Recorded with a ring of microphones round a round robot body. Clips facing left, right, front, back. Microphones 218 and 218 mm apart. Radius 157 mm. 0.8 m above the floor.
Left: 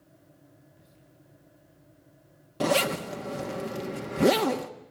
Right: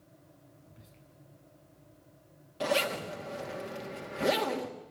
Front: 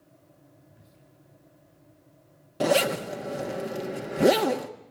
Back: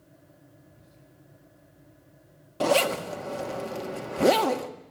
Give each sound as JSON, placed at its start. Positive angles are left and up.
{"t": 0.7, "sound": "whispering", "azimuth_deg": -95, "distance_m": 8.0}
{"t": 2.6, "sound": "a zipper", "azimuth_deg": 70, "distance_m": 1.7}